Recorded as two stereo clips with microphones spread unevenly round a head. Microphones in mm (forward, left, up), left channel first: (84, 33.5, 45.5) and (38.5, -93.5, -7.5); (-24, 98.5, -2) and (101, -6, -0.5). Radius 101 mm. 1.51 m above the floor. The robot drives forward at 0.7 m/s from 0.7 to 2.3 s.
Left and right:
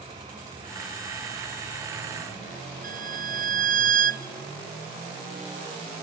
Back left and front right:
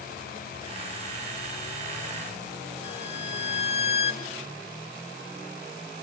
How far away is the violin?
About 0.7 m.